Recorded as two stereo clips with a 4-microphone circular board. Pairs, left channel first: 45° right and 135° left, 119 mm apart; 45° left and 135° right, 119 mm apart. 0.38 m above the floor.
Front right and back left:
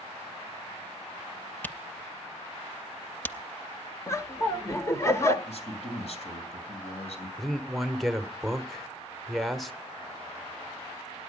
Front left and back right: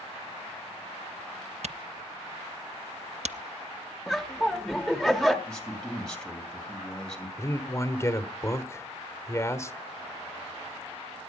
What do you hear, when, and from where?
1.6 s a camera shutter: 120° right, 0.5 m
4.1 s laughter: 45° right, 1.0 m
5.5 s a man speaking: 40° right, 2.5 m
7.4 s a man speaking: 40° left, 1.0 m